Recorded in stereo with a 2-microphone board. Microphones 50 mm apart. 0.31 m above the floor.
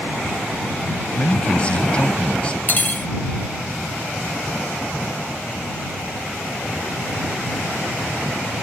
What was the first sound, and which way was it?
A man speaking, 25° left (ahead or behind).